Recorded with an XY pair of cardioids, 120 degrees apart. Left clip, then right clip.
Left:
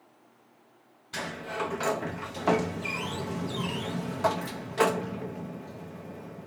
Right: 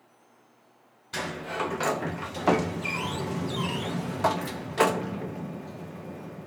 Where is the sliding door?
15° right, 0.8 m.